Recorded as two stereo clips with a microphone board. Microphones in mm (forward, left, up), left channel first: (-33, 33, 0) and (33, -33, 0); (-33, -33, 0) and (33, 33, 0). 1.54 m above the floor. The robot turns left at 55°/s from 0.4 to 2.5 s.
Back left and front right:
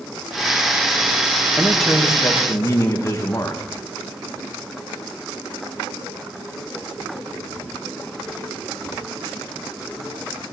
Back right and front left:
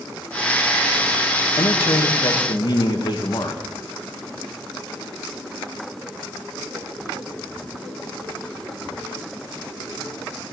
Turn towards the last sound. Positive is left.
turn(degrees=-170)